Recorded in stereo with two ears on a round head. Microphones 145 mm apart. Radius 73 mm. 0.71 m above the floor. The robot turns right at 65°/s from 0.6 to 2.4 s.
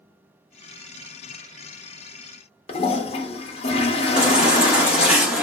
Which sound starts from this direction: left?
A toilet flushing, at 2.7 s.